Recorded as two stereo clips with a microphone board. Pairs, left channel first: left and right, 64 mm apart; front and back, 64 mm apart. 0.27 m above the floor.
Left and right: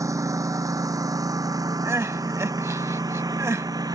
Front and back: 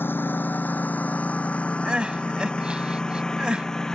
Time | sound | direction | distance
0.0 | a lawn mower | 55° right | ?
1.9 | crying | 110° right | ?